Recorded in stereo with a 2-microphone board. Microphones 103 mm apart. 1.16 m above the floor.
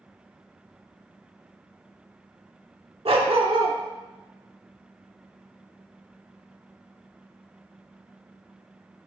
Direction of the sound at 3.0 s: 65° right (ahead or behind).